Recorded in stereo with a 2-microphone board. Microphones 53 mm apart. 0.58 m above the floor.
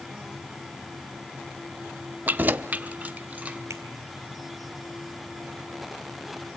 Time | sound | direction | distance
2.3 | keys jangling | 30° right (ahead or behind) | 0.5 m
3.7 | a finger snap | 55° right (ahead or behind) | 1.8 m